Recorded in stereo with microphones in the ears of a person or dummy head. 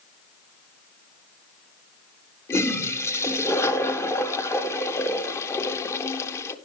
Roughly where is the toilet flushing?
Centre.